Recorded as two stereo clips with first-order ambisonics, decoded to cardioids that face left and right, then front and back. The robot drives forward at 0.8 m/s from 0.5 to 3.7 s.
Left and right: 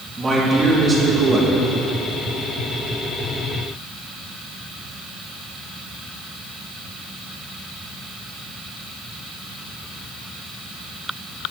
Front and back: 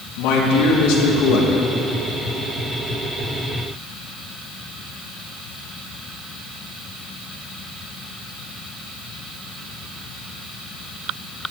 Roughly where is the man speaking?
Ahead.